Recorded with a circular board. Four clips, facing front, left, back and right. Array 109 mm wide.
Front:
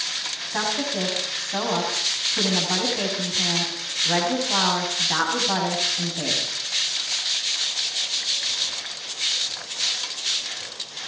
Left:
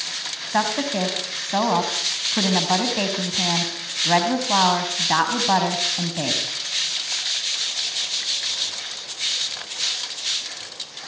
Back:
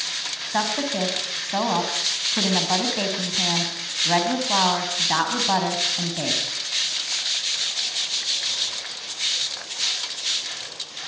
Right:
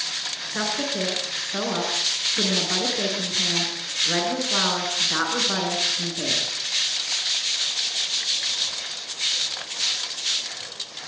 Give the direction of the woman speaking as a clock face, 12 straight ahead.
8 o'clock.